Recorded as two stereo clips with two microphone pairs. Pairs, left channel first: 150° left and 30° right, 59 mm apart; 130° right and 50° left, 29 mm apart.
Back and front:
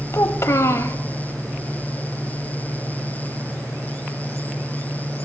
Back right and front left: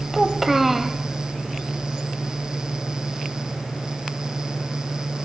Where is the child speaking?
135° left, 0.7 m.